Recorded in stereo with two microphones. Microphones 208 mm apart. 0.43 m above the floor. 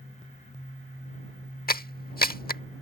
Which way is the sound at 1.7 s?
45° left (ahead or behind).